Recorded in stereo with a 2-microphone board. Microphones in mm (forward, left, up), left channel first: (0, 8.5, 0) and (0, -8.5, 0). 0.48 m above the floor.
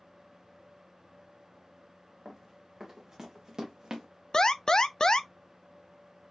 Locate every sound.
2.2 s running footsteps: 20° right (ahead or behind), 1.9 m; by 4.1 s 50° right (ahead or behind), 1.3 m
4.3 s an alarm: 40° left (ahead or behind), 0.5 m